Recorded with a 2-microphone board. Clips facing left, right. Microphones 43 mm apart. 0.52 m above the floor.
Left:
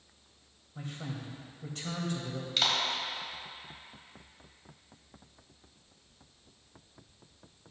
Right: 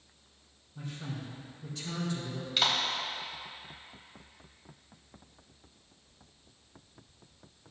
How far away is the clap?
About 1.9 m.